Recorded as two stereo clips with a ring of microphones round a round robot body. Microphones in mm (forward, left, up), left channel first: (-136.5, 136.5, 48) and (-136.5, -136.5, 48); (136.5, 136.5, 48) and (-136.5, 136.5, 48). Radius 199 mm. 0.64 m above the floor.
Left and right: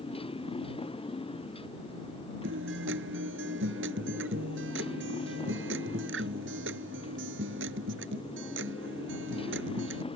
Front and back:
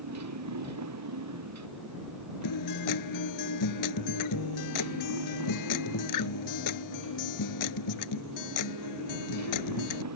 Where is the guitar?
30° right.